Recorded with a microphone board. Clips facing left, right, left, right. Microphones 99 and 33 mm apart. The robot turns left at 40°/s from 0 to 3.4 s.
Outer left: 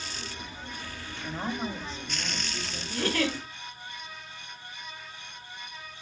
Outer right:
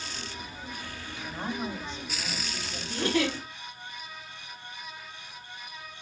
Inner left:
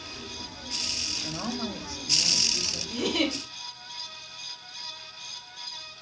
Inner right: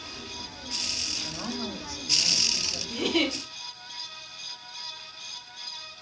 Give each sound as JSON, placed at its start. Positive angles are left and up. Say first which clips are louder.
{"t": 1.2, "sound": "a woman speaking", "louder": "outer left 1 dB, inner left 1 dB", "azimuth_deg": 25, "distance_m": 1.1}
{"t": 2.9, "sound": "a giggle", "louder": "outer right 1 dB, inner right 1 dB", "side_deg": -30, "distance_m": 1.8}